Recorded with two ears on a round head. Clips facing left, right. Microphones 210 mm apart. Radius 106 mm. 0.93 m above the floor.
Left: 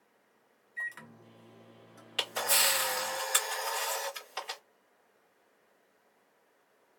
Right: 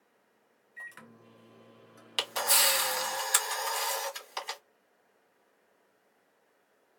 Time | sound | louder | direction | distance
0.8 | a microwave | left 1 dB | 5° right (ahead or behind) | 0.5 m
2.2 | a camera shutter | right 1 dB | 55° right (ahead or behind) | 1.6 m